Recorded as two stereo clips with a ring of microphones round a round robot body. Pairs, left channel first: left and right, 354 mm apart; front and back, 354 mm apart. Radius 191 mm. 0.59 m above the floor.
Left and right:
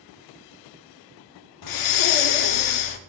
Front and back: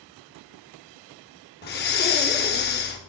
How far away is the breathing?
About 0.7 m.